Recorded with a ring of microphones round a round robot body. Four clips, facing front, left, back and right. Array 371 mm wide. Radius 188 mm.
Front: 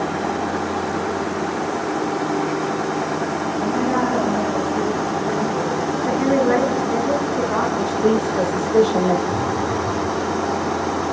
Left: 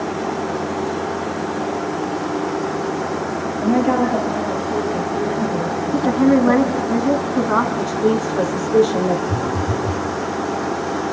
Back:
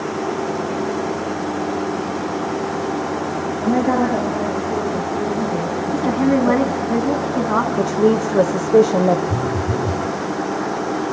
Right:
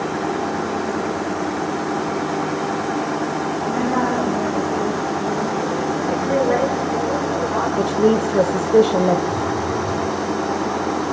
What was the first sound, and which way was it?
A woman speaking, 150° left.